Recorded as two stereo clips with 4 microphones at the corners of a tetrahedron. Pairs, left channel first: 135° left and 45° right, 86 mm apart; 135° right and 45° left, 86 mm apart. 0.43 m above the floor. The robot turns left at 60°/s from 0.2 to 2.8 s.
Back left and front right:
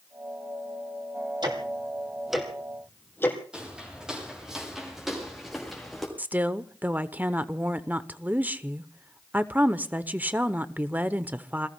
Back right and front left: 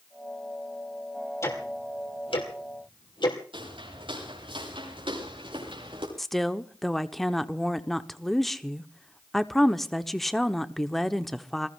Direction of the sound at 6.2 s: 50° right.